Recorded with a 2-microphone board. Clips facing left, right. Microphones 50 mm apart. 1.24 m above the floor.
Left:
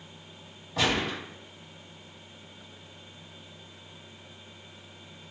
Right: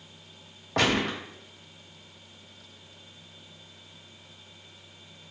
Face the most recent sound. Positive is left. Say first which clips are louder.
# right 2 dB
turn(degrees=-65)  # may be behind; listen again after turning